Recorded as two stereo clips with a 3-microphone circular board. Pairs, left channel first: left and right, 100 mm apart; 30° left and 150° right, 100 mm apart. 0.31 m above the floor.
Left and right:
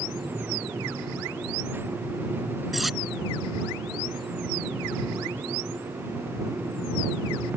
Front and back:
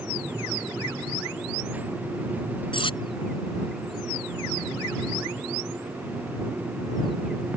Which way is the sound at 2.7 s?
Straight ahead.